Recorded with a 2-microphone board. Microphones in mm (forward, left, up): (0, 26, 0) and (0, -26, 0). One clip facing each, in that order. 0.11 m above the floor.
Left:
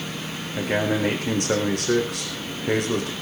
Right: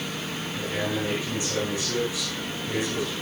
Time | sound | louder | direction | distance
0.6 | a man speaking | left 6 dB | 65° left (ahead or behind) | 5.5 m